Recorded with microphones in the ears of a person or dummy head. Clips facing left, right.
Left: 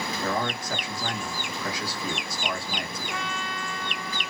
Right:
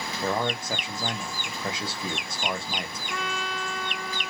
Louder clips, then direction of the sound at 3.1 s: Right 4 dB; 50° right (ahead or behind).